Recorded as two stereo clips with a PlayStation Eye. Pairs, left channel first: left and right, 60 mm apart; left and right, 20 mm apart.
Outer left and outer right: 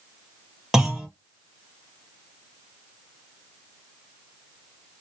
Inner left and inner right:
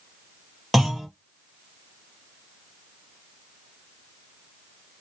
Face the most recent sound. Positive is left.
turn(degrees=-10)  # may be behind; listen again after turning